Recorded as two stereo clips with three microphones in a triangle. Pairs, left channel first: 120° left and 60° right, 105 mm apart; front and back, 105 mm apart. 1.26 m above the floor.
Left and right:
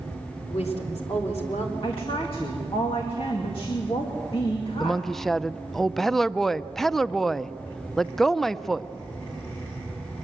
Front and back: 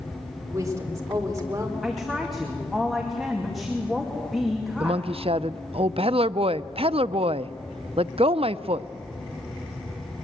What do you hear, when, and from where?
0.5 s a woman speaking: 120° left, 4 m
1.8 s a woman speaking: 90° left, 2.5 m
4.8 s a woman speaking: 155° right, 0.5 m